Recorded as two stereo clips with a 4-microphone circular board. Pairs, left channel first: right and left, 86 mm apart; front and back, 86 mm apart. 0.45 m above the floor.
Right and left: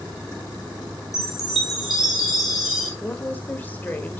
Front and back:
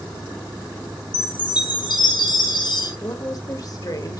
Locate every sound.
1.1 s a chime: straight ahead, 2.5 m
3.0 s a woman speaking: 25° right, 1.5 m